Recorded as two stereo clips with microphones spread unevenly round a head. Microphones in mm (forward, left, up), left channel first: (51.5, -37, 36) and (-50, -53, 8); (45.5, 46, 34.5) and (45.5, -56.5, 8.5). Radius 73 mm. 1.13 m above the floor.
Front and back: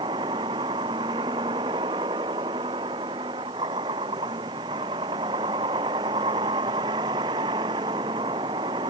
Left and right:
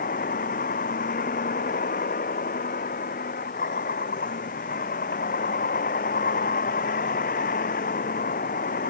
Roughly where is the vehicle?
Behind left.